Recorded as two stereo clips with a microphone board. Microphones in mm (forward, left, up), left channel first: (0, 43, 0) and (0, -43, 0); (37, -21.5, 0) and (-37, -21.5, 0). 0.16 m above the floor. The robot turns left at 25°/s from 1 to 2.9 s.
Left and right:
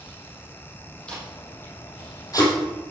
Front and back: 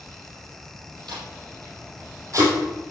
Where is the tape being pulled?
170° left, 4 m; by 2.9 s 125° left, 4 m.